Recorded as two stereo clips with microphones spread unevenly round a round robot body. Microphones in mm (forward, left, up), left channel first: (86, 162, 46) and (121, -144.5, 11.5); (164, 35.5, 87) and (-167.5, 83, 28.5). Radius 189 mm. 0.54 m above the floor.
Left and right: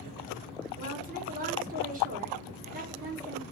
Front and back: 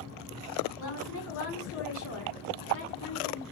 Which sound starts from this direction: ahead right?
A woman speaking, at 0.8 s.